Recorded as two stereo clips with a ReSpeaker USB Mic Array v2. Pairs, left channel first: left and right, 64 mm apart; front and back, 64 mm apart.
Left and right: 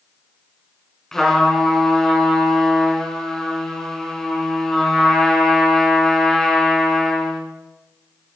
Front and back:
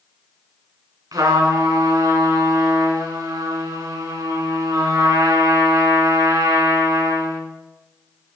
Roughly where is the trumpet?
Behind.